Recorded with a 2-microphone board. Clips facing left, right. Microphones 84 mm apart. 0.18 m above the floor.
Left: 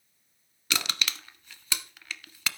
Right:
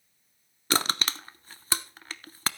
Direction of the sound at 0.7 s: 35° right (ahead or behind).